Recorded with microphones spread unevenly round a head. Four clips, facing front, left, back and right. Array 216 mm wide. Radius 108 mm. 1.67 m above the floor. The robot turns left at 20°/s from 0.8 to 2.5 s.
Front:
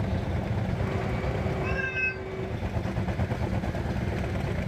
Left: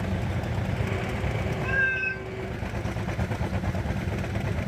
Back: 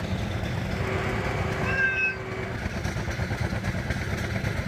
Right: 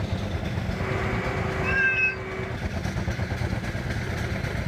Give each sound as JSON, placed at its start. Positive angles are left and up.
{"t": 1.6, "sound": "a cat meowing", "azimuth_deg": -35, "distance_m": 1.0}